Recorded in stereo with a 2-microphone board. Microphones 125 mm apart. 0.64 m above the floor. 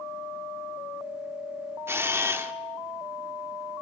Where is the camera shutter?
20° right (ahead or behind), 1.1 m.